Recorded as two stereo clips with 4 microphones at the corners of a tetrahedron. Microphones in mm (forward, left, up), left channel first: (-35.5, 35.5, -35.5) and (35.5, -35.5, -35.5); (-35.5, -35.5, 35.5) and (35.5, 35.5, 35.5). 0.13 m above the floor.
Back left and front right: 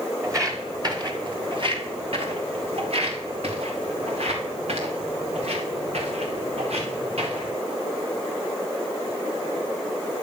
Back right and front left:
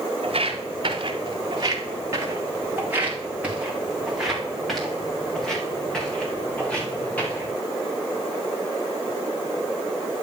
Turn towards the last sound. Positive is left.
turn(degrees=-60)